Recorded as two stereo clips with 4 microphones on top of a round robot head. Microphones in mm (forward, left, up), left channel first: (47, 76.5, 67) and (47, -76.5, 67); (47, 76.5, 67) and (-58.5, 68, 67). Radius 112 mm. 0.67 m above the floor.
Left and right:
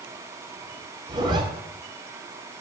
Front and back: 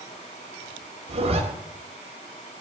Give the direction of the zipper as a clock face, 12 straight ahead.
5 o'clock.